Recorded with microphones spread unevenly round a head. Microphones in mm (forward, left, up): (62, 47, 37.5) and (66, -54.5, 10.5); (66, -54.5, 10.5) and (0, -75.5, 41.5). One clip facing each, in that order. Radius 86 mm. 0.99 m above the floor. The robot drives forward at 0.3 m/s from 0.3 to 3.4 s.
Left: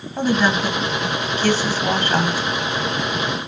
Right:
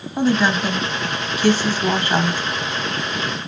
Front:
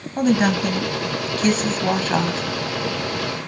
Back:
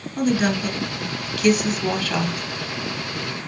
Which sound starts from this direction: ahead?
A woman speaking, at 0.2 s.